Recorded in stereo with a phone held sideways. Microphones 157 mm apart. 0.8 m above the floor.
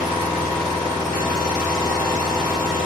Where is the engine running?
5° left (ahead or behind), 1.5 m.